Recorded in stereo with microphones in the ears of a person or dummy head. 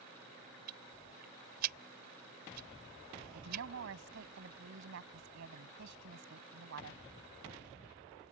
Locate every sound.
0.7 s ticking: 55° right (ahead or behind)
3.3 s a woman speaking: 60° right (ahead or behind)